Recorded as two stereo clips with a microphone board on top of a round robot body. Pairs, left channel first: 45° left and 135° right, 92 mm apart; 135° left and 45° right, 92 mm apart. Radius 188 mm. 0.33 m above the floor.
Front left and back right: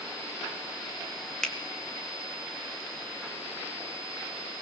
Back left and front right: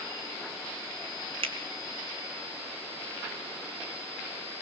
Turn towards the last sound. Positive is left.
turn(degrees=-40)